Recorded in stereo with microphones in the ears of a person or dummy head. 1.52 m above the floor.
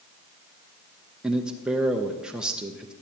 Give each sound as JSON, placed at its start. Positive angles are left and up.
{"t": 1.2, "sound": "a man speaking", "side_deg": -5, "distance_m": 0.6}